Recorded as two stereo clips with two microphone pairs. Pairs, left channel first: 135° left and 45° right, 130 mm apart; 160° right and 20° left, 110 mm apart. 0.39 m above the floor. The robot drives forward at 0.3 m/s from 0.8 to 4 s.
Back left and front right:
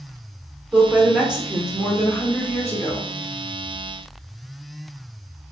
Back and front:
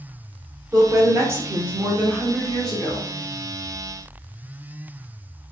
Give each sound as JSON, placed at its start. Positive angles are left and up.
{"t": 0.7, "sound": "a woman speaking", "azimuth_deg": 20, "distance_m": 0.9}